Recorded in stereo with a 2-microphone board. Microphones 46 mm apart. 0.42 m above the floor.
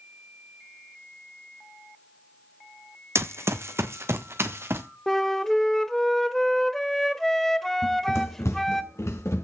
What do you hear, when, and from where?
3.1 s running footsteps: 70° right (ahead or behind), 1.1 m; by 4.8 s 60° right (ahead or behind), 2 m
5.1 s a flute: 10° left (ahead or behind), 1.0 m
7.8 s running footsteps: 60° left (ahead or behind), 1.7 m; by 9.4 s 85° left, 3.5 m